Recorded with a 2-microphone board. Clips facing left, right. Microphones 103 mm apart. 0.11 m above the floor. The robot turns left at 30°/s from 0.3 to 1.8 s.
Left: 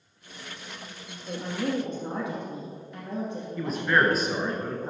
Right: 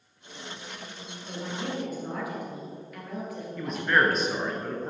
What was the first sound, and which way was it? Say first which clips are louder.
A woman speaking: left 5 dB; 40° left (ahead or behind).